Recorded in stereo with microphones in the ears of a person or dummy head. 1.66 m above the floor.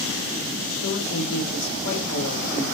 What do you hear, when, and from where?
0.8 s a woman speaking: 70° left (ahead or behind), 5 m